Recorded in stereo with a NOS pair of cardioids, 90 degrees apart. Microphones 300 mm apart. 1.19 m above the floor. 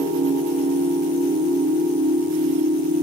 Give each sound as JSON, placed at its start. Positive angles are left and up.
{"t": 0.0, "sound": "a machine running", "azimuth_deg": -40, "distance_m": 1.6}